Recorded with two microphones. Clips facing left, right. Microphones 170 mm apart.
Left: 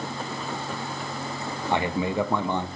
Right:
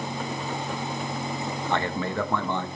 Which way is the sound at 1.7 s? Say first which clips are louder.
Left 3 dB; 15° left (ahead or behind).